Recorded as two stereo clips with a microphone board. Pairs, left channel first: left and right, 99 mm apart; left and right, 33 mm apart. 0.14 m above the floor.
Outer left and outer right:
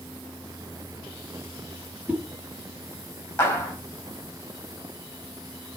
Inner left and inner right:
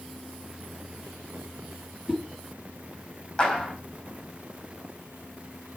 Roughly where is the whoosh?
Centre.